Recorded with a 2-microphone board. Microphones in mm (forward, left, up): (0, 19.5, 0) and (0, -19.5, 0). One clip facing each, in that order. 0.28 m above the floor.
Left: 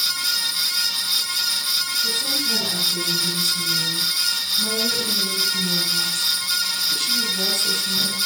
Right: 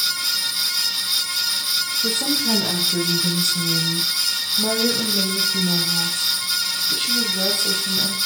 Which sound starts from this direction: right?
A woman speaking, at 2.0 s.